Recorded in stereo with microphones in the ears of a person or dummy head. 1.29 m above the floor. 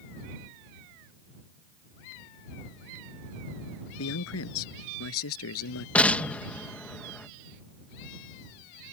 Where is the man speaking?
90° left; by 5.8 s 85° left.